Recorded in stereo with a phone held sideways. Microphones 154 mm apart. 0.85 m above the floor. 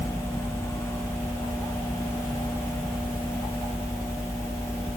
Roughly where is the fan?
Centre.